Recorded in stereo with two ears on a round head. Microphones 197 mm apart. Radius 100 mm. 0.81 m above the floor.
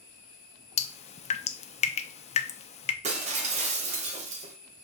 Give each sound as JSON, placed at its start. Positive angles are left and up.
{"t": 0.8, "sound": "dripping", "side_deg": 30, "distance_m": 0.6}
{"t": 3.0, "sound": "breaking glass", "side_deg": -30, "distance_m": 1.4}